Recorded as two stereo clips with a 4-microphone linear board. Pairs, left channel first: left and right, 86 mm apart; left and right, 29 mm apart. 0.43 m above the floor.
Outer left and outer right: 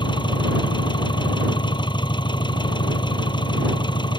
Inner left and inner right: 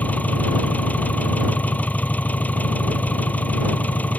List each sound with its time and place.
0.0 s an engine running: 65° left (ahead or behind)